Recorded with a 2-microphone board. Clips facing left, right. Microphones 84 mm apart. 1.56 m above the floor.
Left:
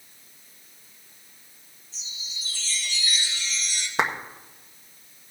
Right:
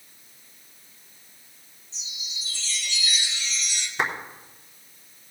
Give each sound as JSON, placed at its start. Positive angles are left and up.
{"t": 1.9, "sound": "a chime", "side_deg": 40, "distance_m": 4.0}
{"t": 4.0, "sound": "a clap", "side_deg": 70, "distance_m": 1.6}